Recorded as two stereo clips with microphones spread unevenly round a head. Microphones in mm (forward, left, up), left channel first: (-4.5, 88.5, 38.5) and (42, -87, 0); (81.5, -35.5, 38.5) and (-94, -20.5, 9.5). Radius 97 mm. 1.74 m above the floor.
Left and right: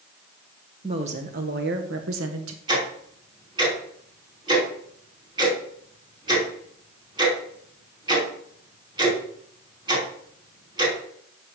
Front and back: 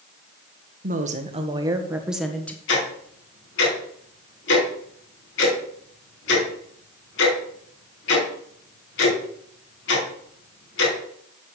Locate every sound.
0.8 s a woman speaking: 140° right, 1.9 m; by 2.6 s 85° right, 1.9 m
2.7 s ticking: 5° right, 5 m